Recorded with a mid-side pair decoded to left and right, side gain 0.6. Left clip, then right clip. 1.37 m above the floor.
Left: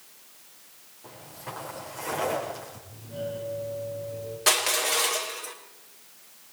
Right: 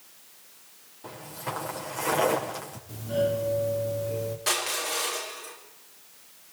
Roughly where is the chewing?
No chewing in this recording.